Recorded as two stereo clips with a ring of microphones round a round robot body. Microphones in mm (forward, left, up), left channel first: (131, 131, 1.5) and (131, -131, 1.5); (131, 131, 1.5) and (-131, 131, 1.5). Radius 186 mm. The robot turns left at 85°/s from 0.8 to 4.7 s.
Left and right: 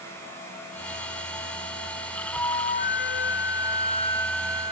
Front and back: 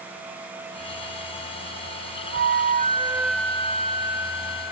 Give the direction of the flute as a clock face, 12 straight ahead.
6 o'clock.